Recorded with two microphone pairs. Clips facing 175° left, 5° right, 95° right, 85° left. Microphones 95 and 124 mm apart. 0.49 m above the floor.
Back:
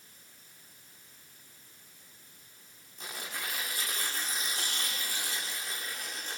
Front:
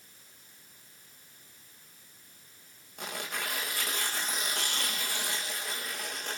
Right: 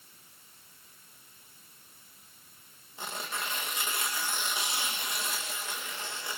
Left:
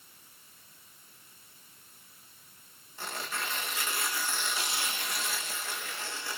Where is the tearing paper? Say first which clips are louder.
Front 4 dB, even; 25° right, 6.5 m.